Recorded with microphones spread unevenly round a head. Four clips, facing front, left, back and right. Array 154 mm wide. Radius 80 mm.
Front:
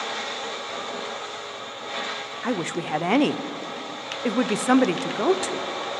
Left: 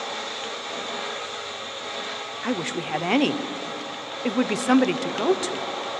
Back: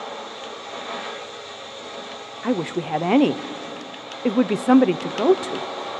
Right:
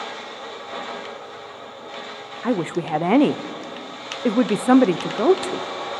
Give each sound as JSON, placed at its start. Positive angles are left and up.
{"t": 2.4, "sound": "a woman speaking", "azimuth_deg": -130, "distance_m": 0.5}